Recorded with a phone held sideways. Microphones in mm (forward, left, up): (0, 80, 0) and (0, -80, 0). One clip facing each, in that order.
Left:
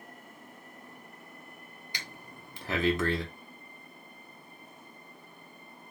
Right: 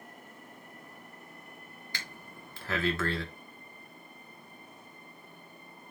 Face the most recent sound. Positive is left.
turn(degrees=15)  # may be behind; listen again after turning